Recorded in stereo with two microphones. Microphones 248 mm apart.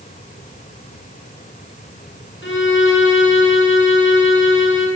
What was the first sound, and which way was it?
A violin, 50° left (ahead or behind).